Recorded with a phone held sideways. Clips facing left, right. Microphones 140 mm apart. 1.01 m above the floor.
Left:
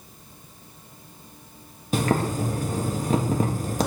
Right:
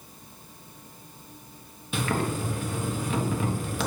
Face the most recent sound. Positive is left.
turn(degrees=40)  # may be behind; listen again after turning